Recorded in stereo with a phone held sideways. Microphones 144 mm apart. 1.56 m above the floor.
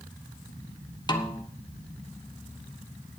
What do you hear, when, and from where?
1.1 s a snare drum: 30° left (ahead or behind), 1.2 m